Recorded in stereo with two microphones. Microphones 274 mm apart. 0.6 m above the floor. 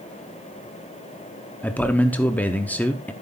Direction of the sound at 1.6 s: 5° left (ahead or behind).